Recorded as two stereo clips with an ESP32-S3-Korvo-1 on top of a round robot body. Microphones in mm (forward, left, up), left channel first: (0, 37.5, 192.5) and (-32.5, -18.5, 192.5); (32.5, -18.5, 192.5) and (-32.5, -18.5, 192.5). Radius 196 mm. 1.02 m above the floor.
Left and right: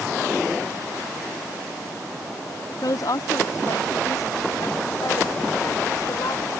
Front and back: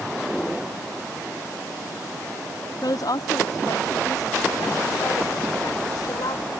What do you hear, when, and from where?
2.8 s a woman speaking: 30° left; by 6.5 s 25° left